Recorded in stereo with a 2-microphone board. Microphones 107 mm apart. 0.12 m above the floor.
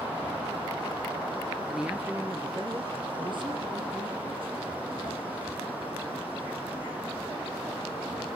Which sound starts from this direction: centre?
A man speaking, at 1.7 s.